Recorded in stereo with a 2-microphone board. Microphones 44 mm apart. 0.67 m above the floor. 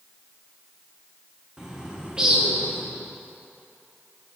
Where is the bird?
15° right (ahead or behind), 0.9 m.